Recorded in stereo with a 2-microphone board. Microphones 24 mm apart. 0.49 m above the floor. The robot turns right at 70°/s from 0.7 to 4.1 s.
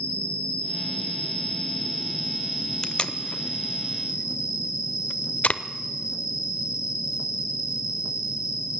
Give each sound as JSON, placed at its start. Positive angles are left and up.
{"t": 0.0, "sound": "an insect", "azimuth_deg": 60, "distance_m": 4.5}
{"t": 2.8, "sound": "tape being pulled", "side_deg": 30, "distance_m": 0.6}